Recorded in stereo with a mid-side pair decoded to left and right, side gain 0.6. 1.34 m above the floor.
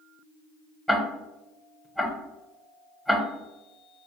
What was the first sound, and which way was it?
Ticking, 10° left.